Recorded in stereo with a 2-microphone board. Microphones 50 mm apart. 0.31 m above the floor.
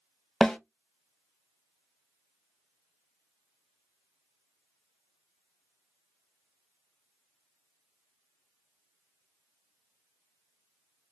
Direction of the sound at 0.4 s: 10° left (ahead or behind).